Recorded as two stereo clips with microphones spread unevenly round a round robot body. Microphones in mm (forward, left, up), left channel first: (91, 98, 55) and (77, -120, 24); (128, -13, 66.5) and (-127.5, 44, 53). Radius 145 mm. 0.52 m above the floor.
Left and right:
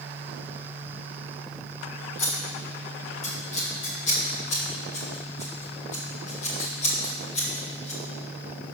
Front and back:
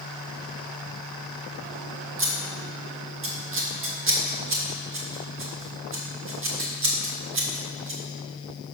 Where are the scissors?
150° left, 1.5 m.